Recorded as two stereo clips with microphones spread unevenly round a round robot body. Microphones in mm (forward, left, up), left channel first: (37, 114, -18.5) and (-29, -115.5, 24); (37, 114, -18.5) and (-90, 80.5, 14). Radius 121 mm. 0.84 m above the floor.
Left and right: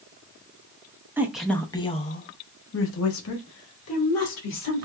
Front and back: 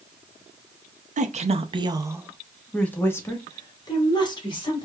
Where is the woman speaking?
165° left, 0.8 m; by 4.8 s 60° left, 1.8 m.